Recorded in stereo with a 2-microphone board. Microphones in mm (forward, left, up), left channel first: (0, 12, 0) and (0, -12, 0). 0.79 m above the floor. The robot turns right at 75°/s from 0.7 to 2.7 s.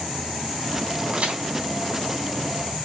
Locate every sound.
1.1 s a crack: 45° right (ahead or behind), 3.5 m; by 1.4 s 70° right (ahead or behind), 3.5 m